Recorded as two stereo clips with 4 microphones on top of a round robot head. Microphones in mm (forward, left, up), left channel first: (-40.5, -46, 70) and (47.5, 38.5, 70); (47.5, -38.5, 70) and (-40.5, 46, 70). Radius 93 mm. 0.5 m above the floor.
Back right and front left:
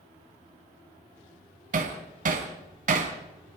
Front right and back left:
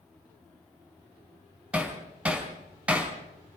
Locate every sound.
1.7 s hammering: 55° left, 2.5 m